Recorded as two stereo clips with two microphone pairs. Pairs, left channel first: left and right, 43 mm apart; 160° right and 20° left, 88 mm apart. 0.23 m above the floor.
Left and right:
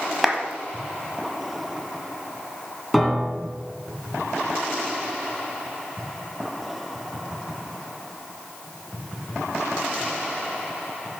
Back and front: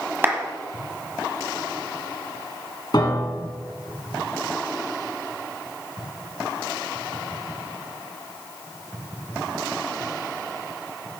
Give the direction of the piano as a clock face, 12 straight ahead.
6 o'clock.